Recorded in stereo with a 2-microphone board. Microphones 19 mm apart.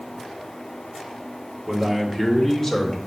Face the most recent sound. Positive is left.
turn(degrees=40)  # may be behind; listen again after turning